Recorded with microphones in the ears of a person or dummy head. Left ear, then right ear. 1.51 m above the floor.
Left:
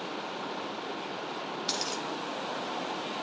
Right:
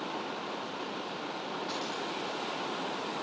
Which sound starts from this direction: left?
A dropped coin, at 1.7 s.